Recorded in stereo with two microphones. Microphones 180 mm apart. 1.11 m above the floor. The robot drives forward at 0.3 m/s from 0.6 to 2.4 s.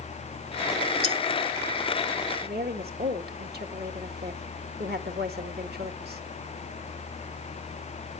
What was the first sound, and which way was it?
Cutlery clinking, 30° right (ahead or behind).